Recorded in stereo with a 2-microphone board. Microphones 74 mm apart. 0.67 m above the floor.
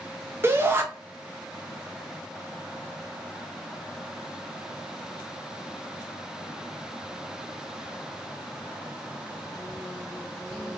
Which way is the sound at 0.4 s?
30° right (ahead or behind).